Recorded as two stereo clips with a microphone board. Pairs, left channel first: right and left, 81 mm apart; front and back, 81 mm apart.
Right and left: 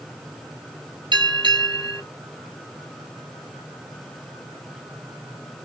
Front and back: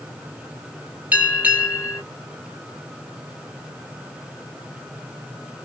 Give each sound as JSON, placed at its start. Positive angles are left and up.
{"t": 1.1, "sound": "a bell", "azimuth_deg": 110, "distance_m": 2.5}